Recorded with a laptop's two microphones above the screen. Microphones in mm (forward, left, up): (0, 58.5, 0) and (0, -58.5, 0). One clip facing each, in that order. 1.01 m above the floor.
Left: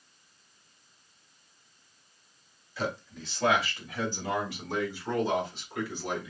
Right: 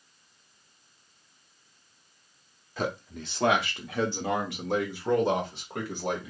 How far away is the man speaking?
About 1.2 m.